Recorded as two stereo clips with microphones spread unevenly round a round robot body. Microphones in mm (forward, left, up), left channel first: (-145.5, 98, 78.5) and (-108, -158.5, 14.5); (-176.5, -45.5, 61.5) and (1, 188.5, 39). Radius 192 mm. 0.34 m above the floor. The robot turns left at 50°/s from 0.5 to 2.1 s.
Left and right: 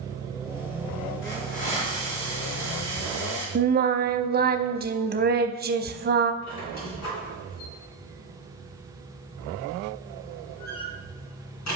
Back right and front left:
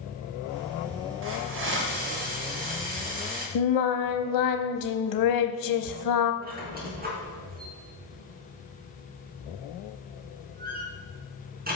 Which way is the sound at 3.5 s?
135° right.